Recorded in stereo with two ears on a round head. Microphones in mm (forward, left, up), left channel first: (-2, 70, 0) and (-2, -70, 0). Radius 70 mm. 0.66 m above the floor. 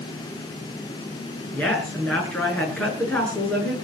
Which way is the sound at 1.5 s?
10° left (ahead or behind).